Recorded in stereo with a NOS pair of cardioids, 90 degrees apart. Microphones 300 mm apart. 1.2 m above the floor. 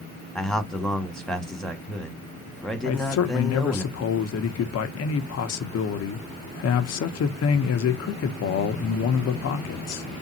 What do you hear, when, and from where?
0.3 s a man speaking: straight ahead, 1.6 m
2.8 s a man speaking: 55° left, 1.0 m